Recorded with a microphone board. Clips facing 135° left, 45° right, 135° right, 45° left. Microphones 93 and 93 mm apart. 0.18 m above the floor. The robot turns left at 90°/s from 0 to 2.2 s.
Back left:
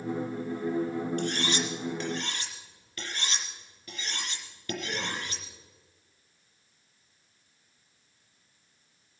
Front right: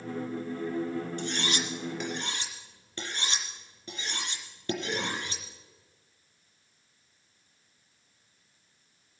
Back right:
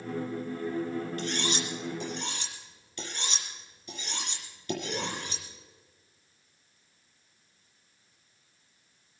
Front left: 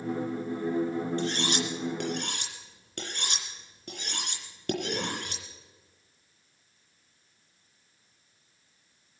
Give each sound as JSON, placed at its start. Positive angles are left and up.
{"t": 1.2, "sound": "cutlery clinking", "azimuth_deg": 110, "distance_m": 3.0}